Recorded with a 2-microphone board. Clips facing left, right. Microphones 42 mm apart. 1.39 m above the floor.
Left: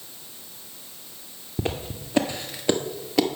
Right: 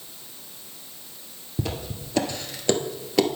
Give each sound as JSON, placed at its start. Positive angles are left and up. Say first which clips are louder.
{"t": 1.6, "sound": "footsteps", "louder": "left 2 dB", "side_deg": 30, "distance_m": 1.6}